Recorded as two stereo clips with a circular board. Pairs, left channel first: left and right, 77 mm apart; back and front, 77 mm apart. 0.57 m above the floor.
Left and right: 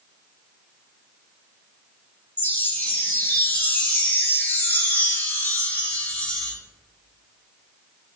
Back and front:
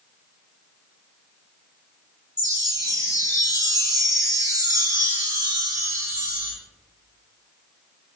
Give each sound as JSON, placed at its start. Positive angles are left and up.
{"t": 2.4, "sound": "a chime", "azimuth_deg": 30, "distance_m": 1.5}